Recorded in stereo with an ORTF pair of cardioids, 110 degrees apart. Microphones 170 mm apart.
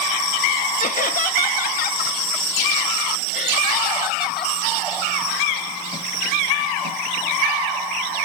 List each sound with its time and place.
0.8 s laughter: 50° left, 1.0 m; by 4.5 s 60° left, 3 m